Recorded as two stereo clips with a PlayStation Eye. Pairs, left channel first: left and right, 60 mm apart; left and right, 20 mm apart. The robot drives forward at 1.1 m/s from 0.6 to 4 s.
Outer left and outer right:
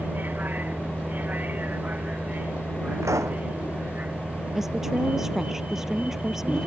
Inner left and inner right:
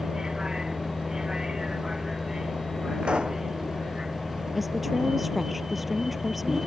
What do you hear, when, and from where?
0.0 s a vehicle: 35° right (ahead or behind); by 6.7 s 25° right (ahead or behind)
3.0 s a pop: 60° right (ahead or behind)
4.5 s a woman speaking: 5° right (ahead or behind)